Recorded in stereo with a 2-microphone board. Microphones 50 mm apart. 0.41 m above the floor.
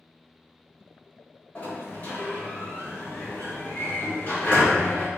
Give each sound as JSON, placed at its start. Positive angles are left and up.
{"t": 1.6, "sound": "a sliding door", "side_deg": 40, "distance_m": 1.1}